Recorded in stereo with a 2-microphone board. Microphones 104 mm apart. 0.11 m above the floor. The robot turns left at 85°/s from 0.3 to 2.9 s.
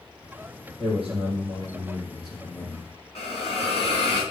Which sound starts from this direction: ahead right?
A man speaking, at 0.8 s.